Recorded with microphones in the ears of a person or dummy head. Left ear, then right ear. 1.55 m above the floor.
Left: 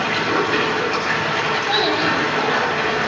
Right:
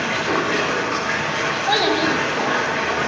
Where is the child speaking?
20° right (ahead or behind), 1.4 m.